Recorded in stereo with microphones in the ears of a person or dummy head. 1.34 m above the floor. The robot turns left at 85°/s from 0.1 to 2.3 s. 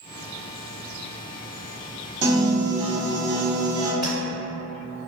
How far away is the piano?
About 0.8 m.